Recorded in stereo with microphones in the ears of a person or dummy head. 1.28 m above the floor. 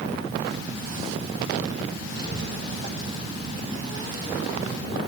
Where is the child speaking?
25° right (ahead or behind), 8 m; by 5.0 s 20° right (ahead or behind), 10 m.